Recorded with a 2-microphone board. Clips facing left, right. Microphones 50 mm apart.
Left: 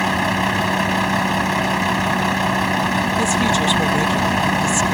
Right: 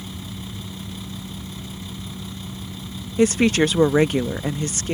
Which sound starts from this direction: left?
A vehicle, at 0.0 s.